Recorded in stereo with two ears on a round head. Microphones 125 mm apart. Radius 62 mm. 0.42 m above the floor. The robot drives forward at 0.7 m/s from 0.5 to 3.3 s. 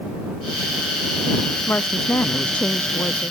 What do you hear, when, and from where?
1.7 s a woman speaking: 15° left (ahead or behind)